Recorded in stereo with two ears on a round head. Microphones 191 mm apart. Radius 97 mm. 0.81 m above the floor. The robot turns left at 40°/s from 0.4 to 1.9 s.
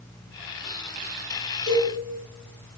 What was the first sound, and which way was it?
A cowbell, 30° left (ahead or behind).